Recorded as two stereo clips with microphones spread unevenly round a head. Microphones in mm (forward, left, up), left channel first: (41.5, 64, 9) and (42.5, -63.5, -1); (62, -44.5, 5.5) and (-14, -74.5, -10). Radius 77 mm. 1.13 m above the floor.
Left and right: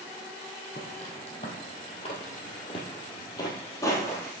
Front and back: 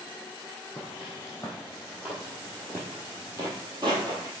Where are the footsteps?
90° left, 2 m; by 4.3 s 160° left, 2 m.